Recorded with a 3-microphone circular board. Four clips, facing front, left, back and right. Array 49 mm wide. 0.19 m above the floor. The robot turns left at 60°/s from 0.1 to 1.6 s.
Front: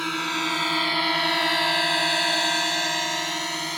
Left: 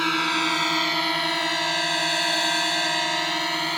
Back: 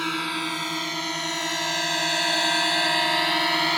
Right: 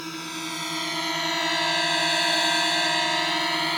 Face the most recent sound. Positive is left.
turn(degrees=-175)